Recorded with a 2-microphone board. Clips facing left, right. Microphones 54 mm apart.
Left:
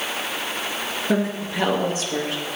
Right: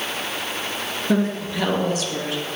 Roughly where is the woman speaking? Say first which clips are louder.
Right 2 dB; centre.